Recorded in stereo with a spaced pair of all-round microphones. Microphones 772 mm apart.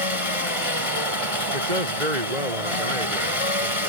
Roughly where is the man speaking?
Right.